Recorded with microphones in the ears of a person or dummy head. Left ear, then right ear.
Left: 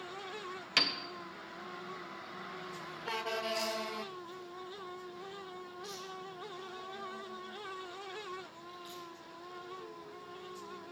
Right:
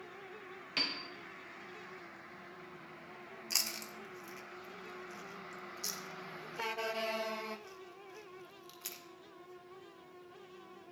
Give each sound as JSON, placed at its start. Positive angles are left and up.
{"t": 0.8, "sound": "a piano", "side_deg": 50, "distance_m": 0.8}
{"t": 3.5, "sound": "chewing", "side_deg": -60, "distance_m": 1.5}